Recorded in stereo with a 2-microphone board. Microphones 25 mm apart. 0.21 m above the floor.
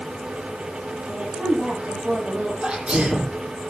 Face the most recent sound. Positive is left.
turn(degrees=-45)  # may be behind; listen again after turning